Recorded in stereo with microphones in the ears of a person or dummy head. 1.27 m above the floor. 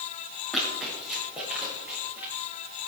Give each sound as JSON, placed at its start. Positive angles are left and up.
{"t": 0.5, "sound": "running footsteps", "side_deg": 0, "distance_m": 6.5}